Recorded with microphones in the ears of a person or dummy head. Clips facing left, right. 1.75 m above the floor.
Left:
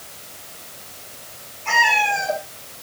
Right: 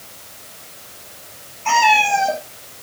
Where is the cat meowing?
65° right (ahead or behind), 4.5 m.